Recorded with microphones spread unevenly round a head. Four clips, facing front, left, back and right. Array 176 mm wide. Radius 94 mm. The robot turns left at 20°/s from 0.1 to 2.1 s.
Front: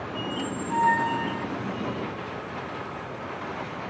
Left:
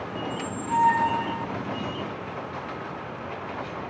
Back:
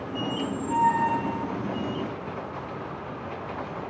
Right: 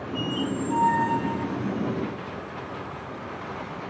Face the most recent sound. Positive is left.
turn(degrees=110)